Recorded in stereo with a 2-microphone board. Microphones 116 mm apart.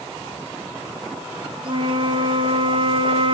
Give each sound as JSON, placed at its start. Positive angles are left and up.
{"t": 1.6, "sound": "a flute", "side_deg": -45, "distance_m": 2.5}